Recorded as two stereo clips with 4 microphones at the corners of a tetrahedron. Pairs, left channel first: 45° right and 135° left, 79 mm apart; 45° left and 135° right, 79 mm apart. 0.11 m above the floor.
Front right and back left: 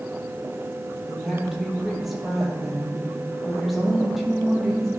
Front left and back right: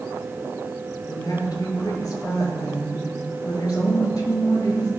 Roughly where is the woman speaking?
Ahead left.